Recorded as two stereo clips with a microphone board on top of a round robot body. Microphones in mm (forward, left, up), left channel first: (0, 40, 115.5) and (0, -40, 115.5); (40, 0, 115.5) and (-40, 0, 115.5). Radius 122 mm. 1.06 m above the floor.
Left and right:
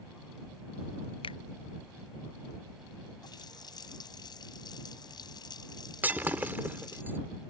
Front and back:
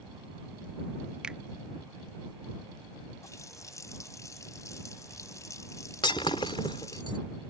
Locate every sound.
1.2 s a finger snap: 100° left
3.2 s a running tap: 50° left
6.0 s breaking glass: 25° right